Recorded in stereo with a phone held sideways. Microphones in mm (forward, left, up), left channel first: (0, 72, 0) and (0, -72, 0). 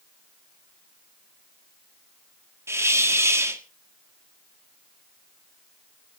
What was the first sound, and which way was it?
A hiss, 20° right (ahead or behind).